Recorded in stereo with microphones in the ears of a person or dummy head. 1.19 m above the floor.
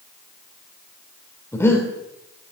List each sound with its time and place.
1.5 s breathing: 15° left (ahead or behind), 3 m